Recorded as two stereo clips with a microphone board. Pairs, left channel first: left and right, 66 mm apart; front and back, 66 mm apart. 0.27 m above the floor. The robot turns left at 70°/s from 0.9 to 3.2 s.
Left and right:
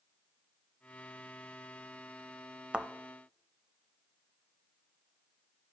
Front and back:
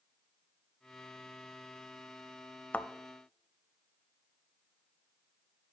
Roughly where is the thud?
Ahead right.